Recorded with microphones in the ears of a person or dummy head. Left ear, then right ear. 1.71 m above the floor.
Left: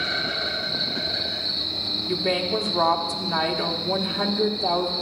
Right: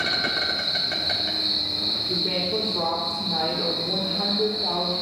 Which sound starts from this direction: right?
An insect, at 0.0 s.